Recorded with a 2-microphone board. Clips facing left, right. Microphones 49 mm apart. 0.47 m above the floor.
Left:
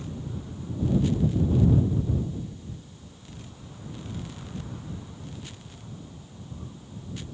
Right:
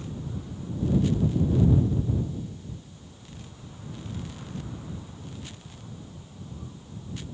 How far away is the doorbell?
No doorbell in this recording.